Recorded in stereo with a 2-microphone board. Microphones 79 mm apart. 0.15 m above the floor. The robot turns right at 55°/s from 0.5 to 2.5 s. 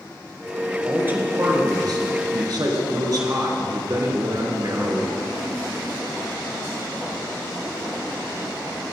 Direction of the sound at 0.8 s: 160° right.